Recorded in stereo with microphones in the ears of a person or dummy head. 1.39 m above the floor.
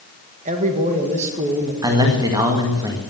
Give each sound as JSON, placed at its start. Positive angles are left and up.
{"t": 0.5, "sound": "a man speaking", "side_deg": -40, "distance_m": 1.9}
{"t": 1.8, "sound": "a man speaking", "side_deg": -15, "distance_m": 2.0}